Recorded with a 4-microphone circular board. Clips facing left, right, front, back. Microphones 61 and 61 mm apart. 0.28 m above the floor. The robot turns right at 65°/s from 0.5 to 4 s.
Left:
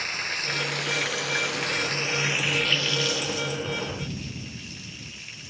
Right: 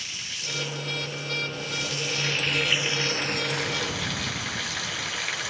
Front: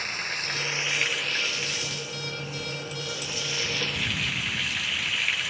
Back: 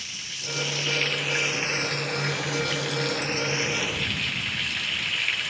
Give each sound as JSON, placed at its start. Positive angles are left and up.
{"t": 0.0, "sound": "running water", "azimuth_deg": 45}